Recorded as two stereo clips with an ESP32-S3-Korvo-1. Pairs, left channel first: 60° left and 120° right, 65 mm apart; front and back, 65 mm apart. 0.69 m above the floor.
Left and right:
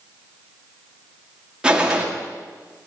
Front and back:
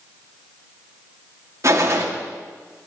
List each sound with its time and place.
1.6 s a gunshot: 170° left, 1.4 m